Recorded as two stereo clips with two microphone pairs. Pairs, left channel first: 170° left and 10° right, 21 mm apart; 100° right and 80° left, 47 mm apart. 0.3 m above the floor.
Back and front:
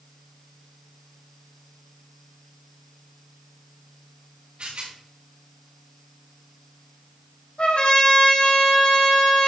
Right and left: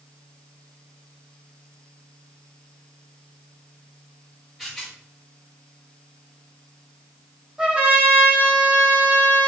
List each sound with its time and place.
4.6 s a rattle: 10° right, 5 m
7.6 s a trumpet: 150° left, 6 m